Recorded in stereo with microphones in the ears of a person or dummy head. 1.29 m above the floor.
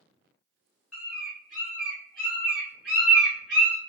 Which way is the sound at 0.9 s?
Centre (ahead or behind).